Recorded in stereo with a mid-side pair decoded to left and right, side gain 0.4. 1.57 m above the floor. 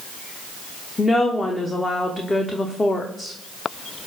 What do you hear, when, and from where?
1.0 s a woman speaking: 30° left, 0.7 m